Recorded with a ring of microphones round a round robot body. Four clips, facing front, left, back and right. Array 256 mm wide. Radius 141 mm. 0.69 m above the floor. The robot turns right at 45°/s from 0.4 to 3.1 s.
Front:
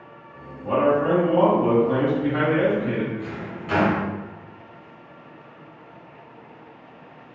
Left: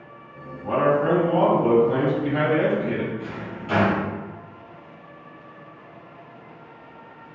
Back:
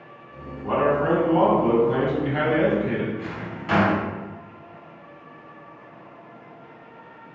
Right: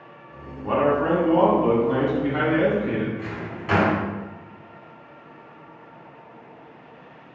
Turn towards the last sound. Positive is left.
turn(degrees=-115)